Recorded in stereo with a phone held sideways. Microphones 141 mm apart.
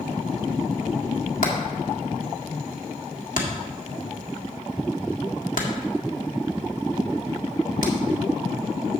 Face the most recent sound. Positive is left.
turn(degrees=70)  # may be behind; listen again after turning